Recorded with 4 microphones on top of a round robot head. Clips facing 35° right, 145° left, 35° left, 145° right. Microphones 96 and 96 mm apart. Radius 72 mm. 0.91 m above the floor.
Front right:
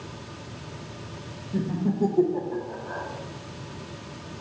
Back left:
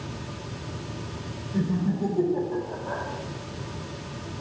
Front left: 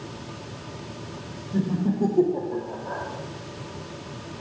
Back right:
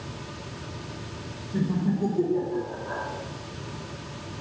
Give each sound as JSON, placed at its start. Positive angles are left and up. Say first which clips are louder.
{"t": 1.5, "sound": "laughter", "louder": "even, front left 2 dB", "azimuth_deg": -25, "distance_m": 1.2}